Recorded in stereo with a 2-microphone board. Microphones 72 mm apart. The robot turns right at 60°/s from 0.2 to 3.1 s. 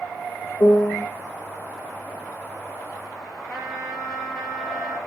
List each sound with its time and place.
0.6 s a piano: 50° left (ahead or behind), 0.8 m; by 1.1 s 65° left (ahead or behind), 0.8 m
3.5 s a trumpet: 10° right (ahead or behind), 4.5 m